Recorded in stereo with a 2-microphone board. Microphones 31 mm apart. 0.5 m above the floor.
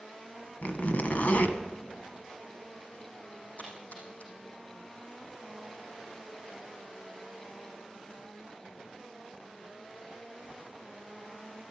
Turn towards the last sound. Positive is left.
turn(degrees=60)  # may be behind; listen again after turning